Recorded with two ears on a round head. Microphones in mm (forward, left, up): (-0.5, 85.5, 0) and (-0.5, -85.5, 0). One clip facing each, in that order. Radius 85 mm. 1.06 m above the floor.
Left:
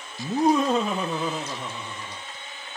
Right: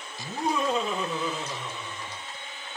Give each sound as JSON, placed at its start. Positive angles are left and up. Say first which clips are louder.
{"t": 0.2, "sound": "laughter", "louder": "left 7 dB", "side_deg": 30, "distance_m": 1.0}